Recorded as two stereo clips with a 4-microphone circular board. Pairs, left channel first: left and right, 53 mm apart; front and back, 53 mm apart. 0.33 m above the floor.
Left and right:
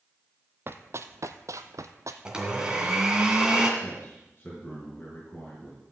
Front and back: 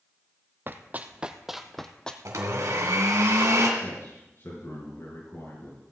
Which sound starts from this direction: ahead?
A man speaking, at 3.8 s.